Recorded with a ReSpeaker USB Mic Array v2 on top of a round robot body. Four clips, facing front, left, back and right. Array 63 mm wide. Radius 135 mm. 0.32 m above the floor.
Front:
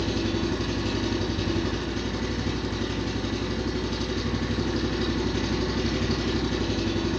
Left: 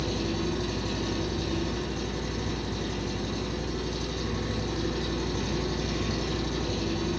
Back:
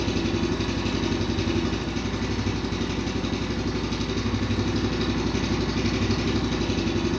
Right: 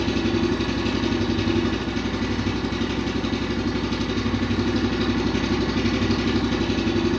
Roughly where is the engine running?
Behind right.